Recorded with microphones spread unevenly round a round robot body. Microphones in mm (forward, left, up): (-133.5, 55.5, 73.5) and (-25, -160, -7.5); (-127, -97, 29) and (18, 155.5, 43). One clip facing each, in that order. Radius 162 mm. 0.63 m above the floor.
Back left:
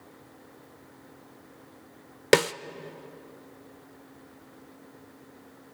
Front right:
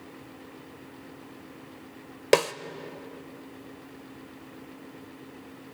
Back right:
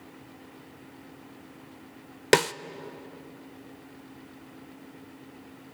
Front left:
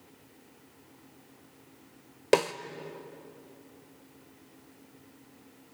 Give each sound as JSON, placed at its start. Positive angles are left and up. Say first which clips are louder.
{"t": 2.3, "sound": "a snare drum", "louder": "back left 1 dB, back right 1 dB", "azimuth_deg": 180, "distance_m": 0.7}